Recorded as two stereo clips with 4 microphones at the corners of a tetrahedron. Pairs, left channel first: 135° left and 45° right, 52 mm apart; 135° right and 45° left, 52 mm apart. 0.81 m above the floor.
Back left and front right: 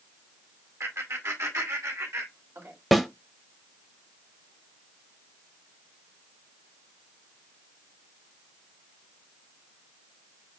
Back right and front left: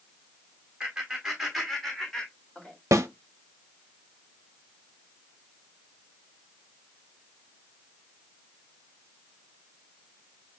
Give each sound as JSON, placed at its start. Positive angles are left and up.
{"t": 0.8, "sound": "laughter", "azimuth_deg": -30, "distance_m": 2.0}
{"t": 2.9, "sound": "a snare drum", "azimuth_deg": 45, "distance_m": 0.8}